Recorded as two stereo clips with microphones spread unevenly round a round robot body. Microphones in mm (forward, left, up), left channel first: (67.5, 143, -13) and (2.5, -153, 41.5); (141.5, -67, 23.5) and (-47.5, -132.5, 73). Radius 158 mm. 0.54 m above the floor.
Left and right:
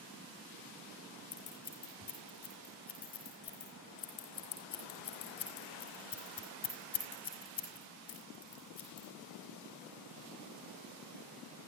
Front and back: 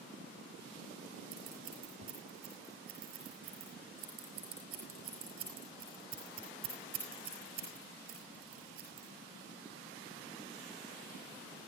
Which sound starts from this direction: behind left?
Scissors, at 1.3 s.